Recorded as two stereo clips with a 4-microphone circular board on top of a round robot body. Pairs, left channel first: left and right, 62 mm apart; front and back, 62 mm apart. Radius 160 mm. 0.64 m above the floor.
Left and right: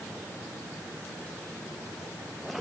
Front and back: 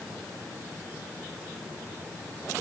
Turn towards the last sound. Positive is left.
No sound to turn to.